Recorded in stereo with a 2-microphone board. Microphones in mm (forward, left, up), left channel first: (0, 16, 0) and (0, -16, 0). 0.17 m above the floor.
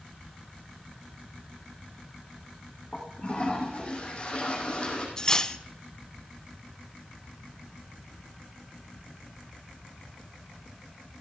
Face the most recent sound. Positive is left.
turn(degrees=25)  # may be behind; listen again after turning